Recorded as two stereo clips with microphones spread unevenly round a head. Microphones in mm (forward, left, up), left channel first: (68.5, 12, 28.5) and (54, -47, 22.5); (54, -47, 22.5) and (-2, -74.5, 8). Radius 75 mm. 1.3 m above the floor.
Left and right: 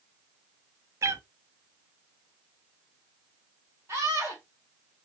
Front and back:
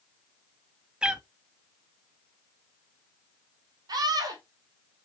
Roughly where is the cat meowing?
Right.